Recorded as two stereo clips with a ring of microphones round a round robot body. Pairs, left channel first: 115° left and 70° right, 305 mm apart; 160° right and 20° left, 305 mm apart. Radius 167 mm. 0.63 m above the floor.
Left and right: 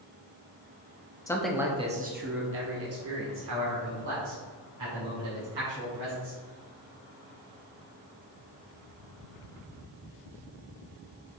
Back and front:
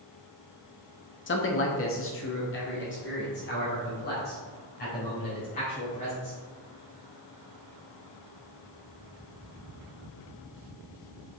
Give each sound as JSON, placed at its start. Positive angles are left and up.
{"t": 1.3, "sound": "a man speaking", "azimuth_deg": -175, "distance_m": 1.1}